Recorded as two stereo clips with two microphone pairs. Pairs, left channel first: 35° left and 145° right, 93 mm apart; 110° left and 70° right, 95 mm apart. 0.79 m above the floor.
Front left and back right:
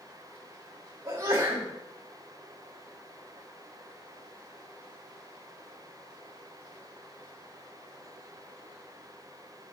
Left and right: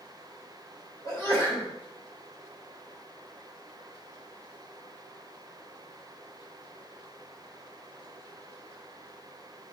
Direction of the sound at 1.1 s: 165° left.